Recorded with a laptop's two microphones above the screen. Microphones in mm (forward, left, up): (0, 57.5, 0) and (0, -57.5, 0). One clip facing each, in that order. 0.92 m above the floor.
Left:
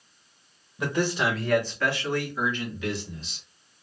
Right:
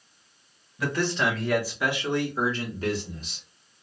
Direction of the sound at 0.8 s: 20° left (ahead or behind).